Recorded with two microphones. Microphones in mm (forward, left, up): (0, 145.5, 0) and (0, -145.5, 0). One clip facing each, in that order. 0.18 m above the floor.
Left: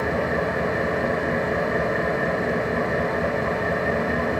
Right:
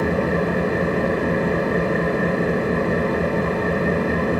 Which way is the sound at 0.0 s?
40° right (ahead or behind).